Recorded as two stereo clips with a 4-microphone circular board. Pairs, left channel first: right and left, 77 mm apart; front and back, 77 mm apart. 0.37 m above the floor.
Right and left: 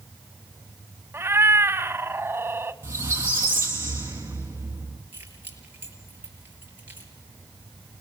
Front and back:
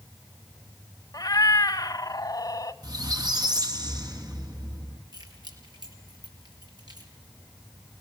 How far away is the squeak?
About 3.5 m.